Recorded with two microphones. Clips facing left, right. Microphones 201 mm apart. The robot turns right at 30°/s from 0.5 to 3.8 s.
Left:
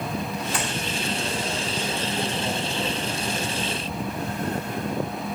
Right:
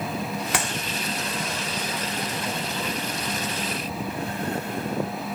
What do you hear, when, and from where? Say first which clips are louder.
0.5 s a clap: right 2 dB; 80° right, 2.5 m